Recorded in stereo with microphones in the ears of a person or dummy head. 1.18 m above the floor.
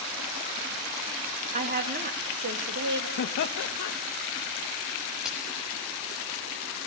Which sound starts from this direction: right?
A woman speaking, at 1.5 s.